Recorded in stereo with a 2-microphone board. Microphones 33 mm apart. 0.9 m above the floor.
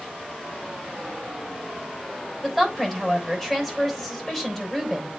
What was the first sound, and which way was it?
A woman speaking, 15° left (ahead or behind).